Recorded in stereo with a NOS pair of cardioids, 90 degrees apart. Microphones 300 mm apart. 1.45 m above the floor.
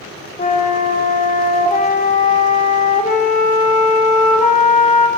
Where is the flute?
25° left, 1.1 m.